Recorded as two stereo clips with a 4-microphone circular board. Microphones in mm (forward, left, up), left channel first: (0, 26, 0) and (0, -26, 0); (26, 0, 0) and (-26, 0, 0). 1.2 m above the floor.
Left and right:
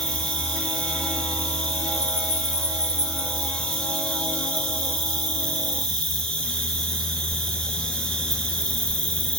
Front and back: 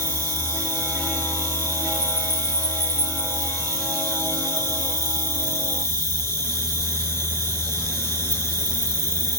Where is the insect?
25° left, 2.5 m.